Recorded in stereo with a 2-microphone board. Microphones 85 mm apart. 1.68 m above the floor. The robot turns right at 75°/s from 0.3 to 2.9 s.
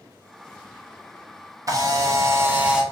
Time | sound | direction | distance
1.7 | a camera shutter | 95° right | 0.6 m